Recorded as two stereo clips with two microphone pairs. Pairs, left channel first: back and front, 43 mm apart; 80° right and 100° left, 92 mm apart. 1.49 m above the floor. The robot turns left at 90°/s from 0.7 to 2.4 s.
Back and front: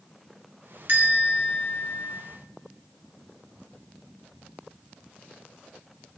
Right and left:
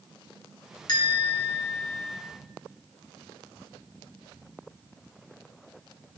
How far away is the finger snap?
I don't hear a finger snap.